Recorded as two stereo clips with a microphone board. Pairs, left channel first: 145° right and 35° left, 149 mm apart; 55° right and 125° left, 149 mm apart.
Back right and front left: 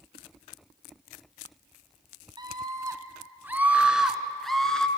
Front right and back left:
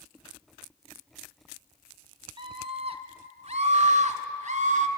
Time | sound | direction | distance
2.4 | a scream | 85° left | 1.8 m